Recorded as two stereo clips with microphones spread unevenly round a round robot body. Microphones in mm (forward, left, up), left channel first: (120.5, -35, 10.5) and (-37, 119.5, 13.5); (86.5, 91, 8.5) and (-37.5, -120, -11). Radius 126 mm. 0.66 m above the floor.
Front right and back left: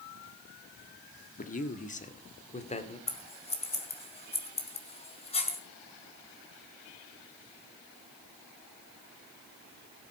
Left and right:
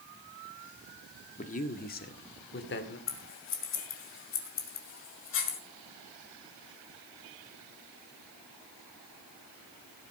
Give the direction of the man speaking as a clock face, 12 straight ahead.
12 o'clock.